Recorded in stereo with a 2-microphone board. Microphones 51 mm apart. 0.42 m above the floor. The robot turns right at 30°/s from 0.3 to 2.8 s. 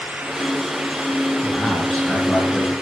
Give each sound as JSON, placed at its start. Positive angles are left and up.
{"t": 1.4, "sound": "a man speaking", "azimuth_deg": 160, "distance_m": 5.5}